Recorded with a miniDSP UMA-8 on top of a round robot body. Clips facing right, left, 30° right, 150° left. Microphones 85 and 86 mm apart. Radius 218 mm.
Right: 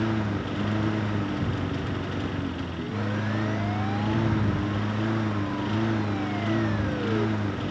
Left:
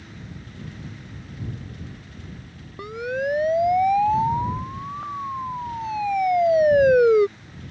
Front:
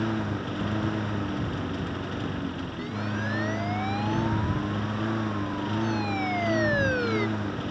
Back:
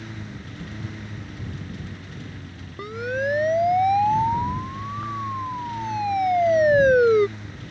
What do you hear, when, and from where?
0.0 s a lawn mower: 65° right
2.8 s a siren: 110° left; by 7.3 s 95° left